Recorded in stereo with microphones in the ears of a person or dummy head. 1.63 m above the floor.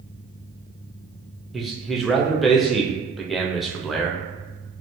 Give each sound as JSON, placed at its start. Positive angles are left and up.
{"t": 1.5, "sound": "a man speaking", "side_deg": -5, "distance_m": 0.6}